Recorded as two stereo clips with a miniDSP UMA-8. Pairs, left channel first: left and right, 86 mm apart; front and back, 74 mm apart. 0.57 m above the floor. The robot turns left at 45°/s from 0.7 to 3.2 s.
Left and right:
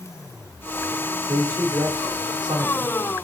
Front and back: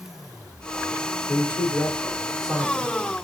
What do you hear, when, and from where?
1.3 s a man speaking: 40° right, 1.6 m; by 2.9 s 115° right, 1.6 m